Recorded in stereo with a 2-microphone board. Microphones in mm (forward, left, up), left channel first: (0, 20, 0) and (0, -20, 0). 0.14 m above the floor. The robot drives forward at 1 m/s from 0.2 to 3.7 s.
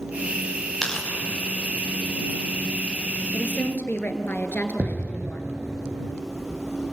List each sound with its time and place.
0.8 s tearing paper: 5° left (ahead or behind), 5.5 m
3.3 s a woman speaking: 50° left (ahead or behind), 1.8 m; by 5.5 s 55° left (ahead or behind), 1.7 m
4.8 s an explosion: 40° right (ahead or behind), 0.9 m